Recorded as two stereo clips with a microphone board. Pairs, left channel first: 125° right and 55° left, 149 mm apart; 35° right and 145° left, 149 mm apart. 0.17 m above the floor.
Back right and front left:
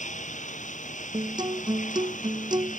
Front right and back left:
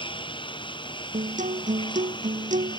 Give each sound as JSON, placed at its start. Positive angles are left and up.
{"t": 0.0, "sound": "a lawn mower", "azimuth_deg": -90}
{"t": 1.1, "sound": "a guitar", "azimuth_deg": 115}